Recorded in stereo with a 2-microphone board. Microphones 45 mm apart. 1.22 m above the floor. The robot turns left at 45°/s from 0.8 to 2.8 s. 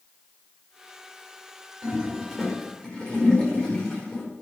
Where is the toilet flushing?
25° right (ahead or behind), 5.5 m; by 4.2 s 20° left (ahead or behind), 5.5 m.